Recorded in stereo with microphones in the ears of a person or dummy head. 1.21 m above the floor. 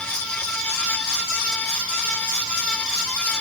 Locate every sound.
Only background noise.